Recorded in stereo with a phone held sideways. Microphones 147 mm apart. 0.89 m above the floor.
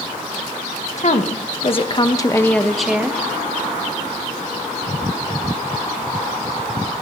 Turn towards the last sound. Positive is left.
turn(degrees=-15)  # may be behind; listen again after turning